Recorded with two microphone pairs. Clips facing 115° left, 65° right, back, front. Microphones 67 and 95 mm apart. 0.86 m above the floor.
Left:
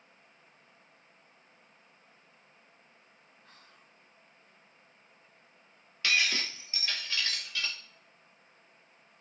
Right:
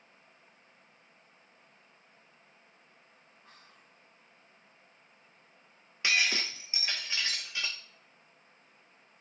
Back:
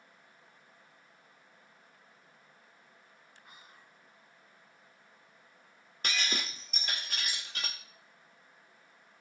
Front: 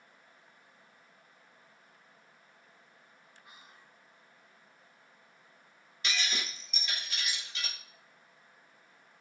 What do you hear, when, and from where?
3.4 s whispering: 135° right, 2.5 m
6.0 s breaking glass: 135° right, 0.6 m